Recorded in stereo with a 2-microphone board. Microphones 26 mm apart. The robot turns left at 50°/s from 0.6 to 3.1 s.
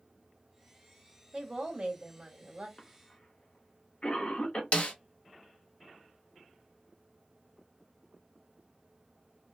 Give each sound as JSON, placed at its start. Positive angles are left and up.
{"t": 1.3, "sound": "a woman speaking", "azimuth_deg": -40, "distance_m": 1.5}
{"t": 2.8, "sound": "a cough", "side_deg": 35, "distance_m": 1.0}
{"t": 4.7, "sound": "a snare drum", "side_deg": 50, "distance_m": 0.7}